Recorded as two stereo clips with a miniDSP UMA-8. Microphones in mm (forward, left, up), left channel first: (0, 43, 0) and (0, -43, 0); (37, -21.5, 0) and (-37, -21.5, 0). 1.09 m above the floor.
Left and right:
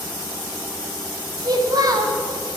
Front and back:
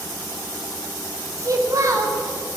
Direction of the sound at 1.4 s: 135° right.